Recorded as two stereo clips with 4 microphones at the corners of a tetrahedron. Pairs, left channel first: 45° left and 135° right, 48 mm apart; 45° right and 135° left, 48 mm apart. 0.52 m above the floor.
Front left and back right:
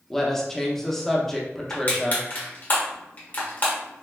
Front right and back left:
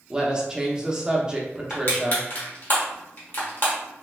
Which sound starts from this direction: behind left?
A woman speaking, at 0.1 s.